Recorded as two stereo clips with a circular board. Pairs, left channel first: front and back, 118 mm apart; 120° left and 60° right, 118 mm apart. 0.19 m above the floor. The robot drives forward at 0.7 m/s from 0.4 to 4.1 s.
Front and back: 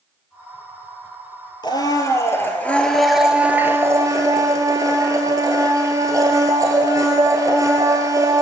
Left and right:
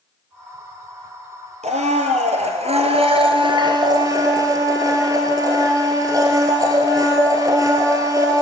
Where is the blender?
50° right, 1.7 m; by 8.4 s 120° right, 1.5 m.